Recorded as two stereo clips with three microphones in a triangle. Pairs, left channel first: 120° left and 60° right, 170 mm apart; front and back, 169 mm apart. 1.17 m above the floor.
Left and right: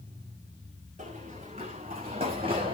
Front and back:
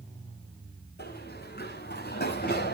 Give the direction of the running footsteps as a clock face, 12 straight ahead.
12 o'clock.